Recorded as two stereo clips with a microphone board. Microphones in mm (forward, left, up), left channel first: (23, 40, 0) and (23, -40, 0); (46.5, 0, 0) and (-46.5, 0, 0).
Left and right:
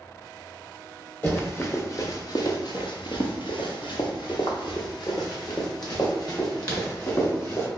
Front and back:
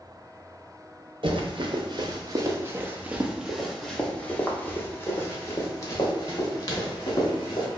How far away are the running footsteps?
About 1.5 m.